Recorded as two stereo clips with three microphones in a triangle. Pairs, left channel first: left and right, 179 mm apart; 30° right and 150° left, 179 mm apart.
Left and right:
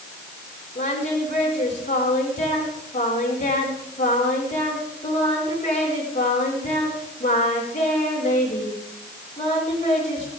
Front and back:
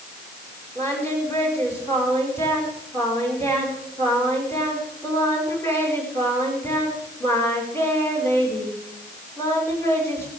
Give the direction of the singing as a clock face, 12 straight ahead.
10 o'clock.